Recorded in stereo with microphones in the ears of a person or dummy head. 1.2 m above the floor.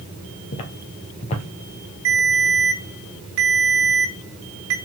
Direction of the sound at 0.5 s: 35° left (ahead or behind).